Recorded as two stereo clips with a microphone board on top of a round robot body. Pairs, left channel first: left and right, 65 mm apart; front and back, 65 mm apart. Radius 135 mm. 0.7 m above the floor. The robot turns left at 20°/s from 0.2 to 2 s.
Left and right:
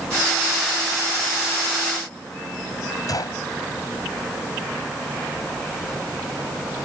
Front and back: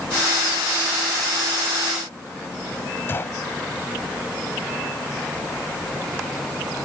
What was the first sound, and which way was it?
A gunshot, 60° left.